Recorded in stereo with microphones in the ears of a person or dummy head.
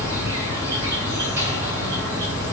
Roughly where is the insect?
Right.